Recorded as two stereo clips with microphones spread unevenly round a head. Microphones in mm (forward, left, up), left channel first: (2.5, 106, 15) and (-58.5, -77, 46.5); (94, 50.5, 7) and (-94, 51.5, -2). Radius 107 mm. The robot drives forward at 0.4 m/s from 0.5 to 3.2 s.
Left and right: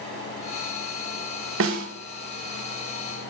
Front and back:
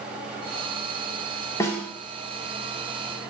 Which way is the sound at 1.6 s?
75° right.